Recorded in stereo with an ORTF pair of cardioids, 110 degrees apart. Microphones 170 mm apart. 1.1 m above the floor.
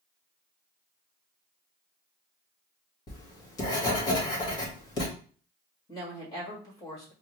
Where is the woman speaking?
25° left, 1.6 m.